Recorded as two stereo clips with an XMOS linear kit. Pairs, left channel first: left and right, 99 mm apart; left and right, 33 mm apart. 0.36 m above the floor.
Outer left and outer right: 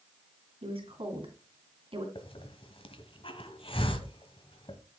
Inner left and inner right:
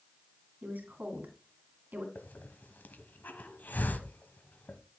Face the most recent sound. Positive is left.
turn(degrees=65)  # may be behind; listen again after turning